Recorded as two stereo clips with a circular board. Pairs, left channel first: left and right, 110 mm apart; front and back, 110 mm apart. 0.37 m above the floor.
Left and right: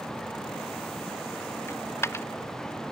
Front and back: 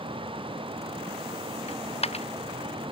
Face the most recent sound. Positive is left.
turn(degrees=25)